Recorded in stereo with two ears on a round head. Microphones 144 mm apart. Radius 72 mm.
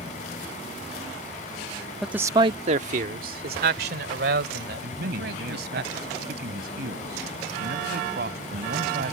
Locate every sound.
2.0 s a man speaking: centre (ahead or behind); by 5.8 s 75° right (ahead or behind)
4.8 s a man speaking: 65° right (ahead or behind)